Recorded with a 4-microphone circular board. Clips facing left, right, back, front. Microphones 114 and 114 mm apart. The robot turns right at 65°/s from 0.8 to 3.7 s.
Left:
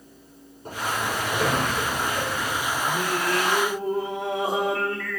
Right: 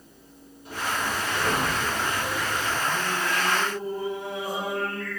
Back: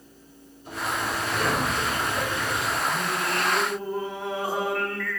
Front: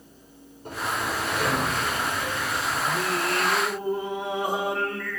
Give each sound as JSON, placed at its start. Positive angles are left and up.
{"t": 0.7, "sound": "a sliding door", "azimuth_deg": 45, "distance_m": 9.5}
{"t": 2.9, "sound": "singing", "azimuth_deg": 20, "distance_m": 4.0}